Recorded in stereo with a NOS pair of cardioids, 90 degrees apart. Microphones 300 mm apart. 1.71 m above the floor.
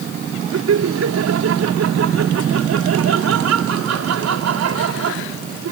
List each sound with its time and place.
0.5 s laughter: 60° right